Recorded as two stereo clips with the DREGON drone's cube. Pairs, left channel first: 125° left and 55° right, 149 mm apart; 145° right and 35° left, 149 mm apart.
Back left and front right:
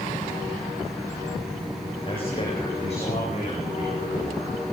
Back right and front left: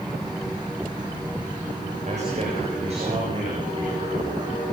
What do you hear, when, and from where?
2.0 s a man speaking: 75° left, 7 m; by 4.6 s 90° left, 9 m